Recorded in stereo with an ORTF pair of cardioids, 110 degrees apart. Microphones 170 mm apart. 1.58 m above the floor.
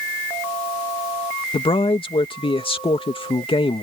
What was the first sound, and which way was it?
A man speaking, 30° left.